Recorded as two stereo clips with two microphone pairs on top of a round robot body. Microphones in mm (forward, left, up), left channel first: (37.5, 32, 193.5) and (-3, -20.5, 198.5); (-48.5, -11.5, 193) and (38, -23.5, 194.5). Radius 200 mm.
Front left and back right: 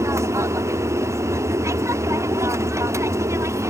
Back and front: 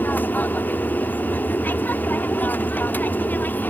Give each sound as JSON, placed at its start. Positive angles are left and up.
{"t": 0.0, "sound": "an aircraft", "azimuth_deg": -130}